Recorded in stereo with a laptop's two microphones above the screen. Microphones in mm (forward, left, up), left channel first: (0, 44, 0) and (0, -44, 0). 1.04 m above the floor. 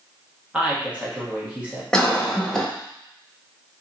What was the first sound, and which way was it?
A woman speaking, 15° right (ahead or behind).